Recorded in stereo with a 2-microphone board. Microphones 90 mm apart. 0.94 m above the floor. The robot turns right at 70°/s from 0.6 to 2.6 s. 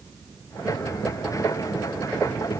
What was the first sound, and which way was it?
Only background noise.